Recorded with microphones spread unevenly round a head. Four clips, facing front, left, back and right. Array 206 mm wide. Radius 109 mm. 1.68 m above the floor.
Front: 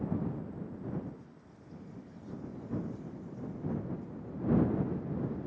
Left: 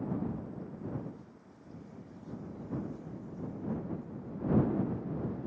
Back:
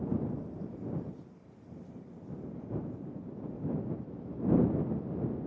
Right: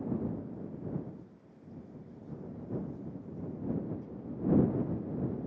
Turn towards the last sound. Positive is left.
No sound to turn to.